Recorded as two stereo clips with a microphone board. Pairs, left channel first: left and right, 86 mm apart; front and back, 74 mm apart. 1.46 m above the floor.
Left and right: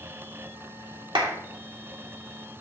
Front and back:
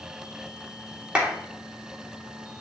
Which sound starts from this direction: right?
A clap, at 1.1 s.